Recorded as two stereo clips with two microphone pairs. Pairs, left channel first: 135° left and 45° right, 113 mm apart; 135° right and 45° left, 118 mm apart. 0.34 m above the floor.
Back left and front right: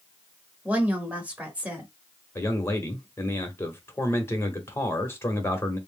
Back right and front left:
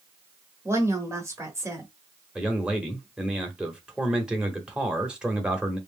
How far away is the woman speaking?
About 1.1 m.